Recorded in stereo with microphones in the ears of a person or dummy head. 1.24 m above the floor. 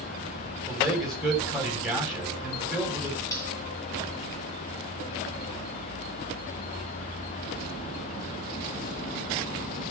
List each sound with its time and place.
0.7 s a man speaking: centre (ahead or behind), 7.5 m
3.3 s cutlery clinking: 20° left (ahead or behind), 6 m